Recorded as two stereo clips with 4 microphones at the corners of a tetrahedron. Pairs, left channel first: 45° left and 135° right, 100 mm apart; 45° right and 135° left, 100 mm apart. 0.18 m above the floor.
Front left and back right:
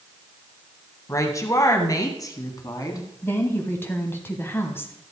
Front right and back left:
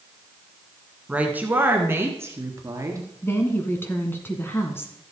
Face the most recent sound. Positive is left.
turn(degrees=0)